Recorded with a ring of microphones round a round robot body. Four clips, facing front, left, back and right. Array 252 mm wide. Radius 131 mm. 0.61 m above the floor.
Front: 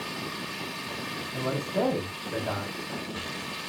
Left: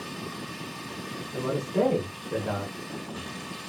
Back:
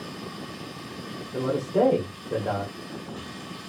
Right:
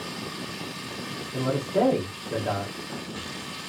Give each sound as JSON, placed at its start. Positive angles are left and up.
{"t": 0.0, "sound": "running water", "azimuth_deg": -5, "distance_m": 0.7}
{"t": 1.3, "sound": "a man speaking", "azimuth_deg": -150, "distance_m": 1.4}